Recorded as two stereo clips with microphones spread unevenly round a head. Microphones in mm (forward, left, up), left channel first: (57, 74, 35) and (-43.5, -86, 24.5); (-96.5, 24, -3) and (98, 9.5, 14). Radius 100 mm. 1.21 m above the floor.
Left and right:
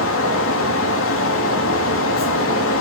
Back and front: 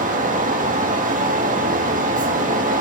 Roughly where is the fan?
Ahead left.